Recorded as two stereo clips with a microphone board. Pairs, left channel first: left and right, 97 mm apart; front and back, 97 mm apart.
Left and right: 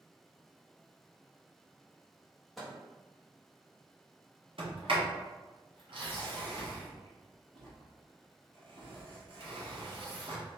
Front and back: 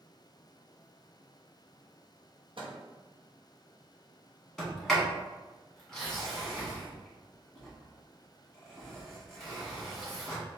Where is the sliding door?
85° right, 1.6 m.